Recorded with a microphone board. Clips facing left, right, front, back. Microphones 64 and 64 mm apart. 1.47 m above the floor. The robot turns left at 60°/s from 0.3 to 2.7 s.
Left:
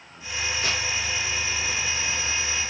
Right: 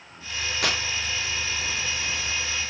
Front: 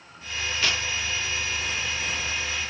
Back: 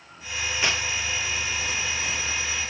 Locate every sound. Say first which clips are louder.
0.6 s tearing paper: right 3 dB, back 1 dB; 105° right, 1.2 m; by 0.8 s 120° right, 1.2 m